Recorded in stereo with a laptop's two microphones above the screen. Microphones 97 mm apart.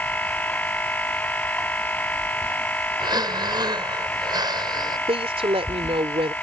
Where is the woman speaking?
80° right.